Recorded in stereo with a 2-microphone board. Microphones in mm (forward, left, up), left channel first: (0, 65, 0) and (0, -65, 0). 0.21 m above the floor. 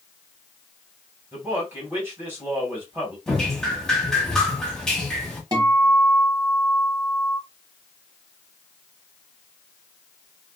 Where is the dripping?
5° left (ahead or behind), 0.8 m.